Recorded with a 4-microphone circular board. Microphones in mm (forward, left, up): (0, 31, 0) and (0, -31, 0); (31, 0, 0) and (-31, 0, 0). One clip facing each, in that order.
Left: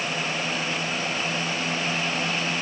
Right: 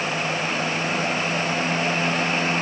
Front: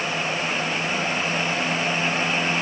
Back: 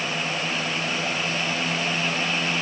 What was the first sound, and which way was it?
Only background noise.